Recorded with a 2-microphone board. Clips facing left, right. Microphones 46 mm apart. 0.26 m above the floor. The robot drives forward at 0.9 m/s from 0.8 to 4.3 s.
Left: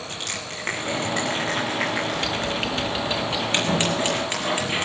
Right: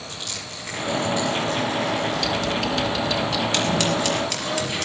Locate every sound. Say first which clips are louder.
0.1 s crushing: left 3 dB; 50° left (ahead or behind), 6.5 m; by 2.5 s 65° left (ahead or behind), 5.5 m
2.1 s typing on a keyboard: right 2 dB; 30° left (ahead or behind), 1.8 m; by 3.4 s 20° left (ahead or behind), 2.5 m
3.5 s scissors: left 1 dB; 25° left (ahead or behind), 4 m